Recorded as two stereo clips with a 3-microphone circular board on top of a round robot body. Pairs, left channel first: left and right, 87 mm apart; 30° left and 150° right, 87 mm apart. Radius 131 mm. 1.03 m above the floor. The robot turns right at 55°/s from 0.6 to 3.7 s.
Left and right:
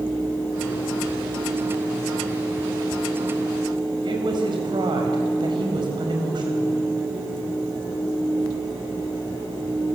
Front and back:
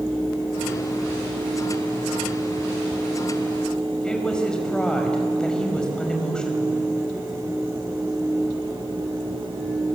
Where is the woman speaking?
50° right, 5 m.